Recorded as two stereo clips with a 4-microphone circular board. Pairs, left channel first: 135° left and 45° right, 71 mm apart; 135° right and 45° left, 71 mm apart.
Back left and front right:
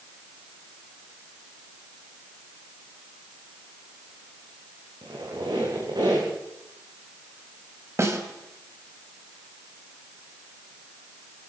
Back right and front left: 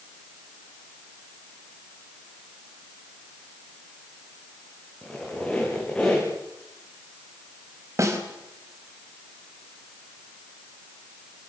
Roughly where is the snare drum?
Ahead.